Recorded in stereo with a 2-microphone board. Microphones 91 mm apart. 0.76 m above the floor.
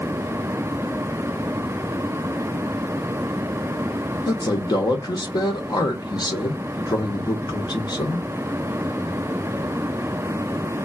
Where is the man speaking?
55° left (ahead or behind), 0.7 m.